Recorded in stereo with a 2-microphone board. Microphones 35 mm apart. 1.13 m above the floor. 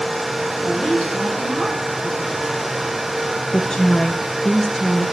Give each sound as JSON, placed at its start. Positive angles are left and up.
{"t": 0.6, "sound": "a woman speaking", "side_deg": 10, "distance_m": 7.5}
{"t": 3.5, "sound": "a woman speaking", "side_deg": 15, "distance_m": 0.7}